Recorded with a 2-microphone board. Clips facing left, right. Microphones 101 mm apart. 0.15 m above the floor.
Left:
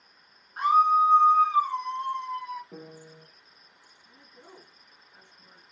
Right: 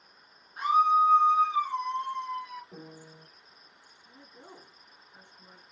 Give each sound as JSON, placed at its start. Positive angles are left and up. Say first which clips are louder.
{"t": 0.6, "sound": "a scream", "louder": "left 2 dB", "side_deg": 45, "distance_m": 2.0}
{"t": 2.7, "sound": "a piano", "louder": "left 2 dB", "side_deg": 15, "distance_m": 0.9}
{"t": 4.0, "sound": "a woman speaking", "louder": "right 1 dB", "side_deg": -25, "distance_m": 1.6}